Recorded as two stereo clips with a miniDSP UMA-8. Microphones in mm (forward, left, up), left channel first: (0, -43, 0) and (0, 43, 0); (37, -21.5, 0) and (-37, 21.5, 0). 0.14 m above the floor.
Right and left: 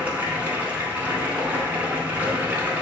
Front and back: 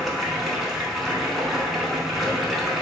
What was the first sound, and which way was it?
Running water, 65° left.